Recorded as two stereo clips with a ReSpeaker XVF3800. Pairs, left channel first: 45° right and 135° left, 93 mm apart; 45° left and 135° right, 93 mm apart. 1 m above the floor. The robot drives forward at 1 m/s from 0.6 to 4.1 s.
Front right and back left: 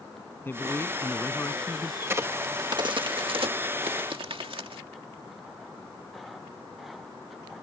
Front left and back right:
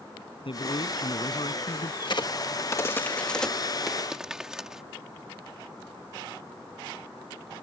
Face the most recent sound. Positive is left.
turn(degrees=140)